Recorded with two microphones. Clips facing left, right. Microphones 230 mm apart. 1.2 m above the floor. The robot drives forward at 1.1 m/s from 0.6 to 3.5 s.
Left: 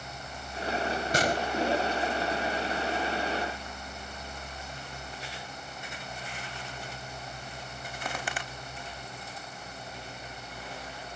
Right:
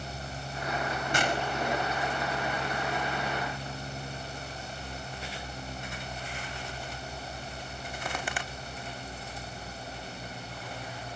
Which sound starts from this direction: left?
A gunshot, at 1.1 s.